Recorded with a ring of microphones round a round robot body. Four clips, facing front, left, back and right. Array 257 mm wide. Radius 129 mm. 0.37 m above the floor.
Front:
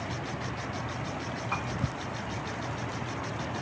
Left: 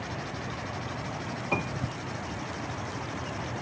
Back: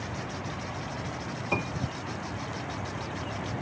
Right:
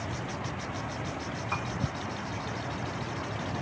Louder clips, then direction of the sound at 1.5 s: Left 5 dB, back 4 dB; 135° left.